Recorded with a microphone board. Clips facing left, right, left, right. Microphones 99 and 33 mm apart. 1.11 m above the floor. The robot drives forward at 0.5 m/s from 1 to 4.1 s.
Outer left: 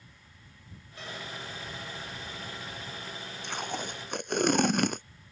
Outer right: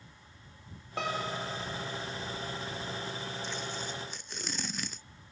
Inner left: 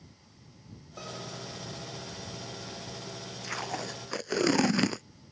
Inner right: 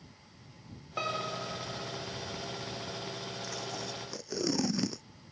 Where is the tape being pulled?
60° left (ahead or behind).